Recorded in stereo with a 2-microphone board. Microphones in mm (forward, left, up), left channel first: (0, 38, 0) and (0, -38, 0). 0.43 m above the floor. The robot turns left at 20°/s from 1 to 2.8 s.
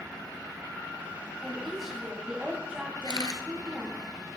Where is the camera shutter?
60° left (ahead or behind), 1.3 m.